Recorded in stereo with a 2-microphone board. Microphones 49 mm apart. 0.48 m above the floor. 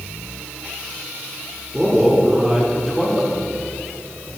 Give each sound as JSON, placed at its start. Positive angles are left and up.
{"t": 1.7, "sound": "a man speaking", "side_deg": -10, "distance_m": 1.4}